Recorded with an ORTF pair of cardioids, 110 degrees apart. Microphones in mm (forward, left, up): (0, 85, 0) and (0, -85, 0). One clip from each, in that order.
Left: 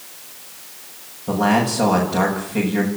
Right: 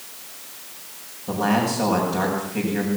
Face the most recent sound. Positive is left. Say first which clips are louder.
# left 4 dB
turn(degrees=35)